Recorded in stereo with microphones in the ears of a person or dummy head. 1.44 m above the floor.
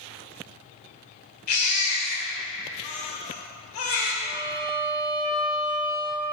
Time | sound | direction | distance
1.5 | a baby crying | 45° left (ahead or behind) | 1.5 m
4.2 | a violin | 30° right (ahead or behind) | 0.7 m